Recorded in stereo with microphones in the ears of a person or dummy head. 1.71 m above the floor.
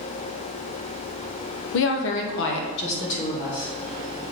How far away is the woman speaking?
About 0.8 m.